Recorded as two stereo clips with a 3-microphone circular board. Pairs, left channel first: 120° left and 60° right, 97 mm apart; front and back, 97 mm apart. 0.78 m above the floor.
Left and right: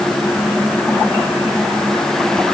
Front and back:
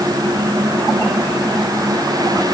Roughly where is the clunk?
No clunk in this recording.